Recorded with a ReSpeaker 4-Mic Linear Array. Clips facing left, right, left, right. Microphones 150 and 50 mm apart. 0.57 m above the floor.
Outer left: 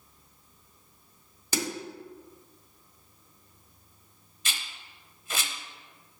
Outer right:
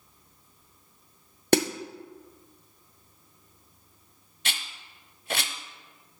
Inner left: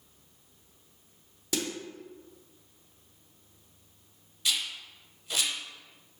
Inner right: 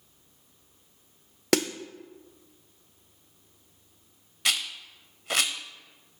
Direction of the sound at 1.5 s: 75° right (ahead or behind).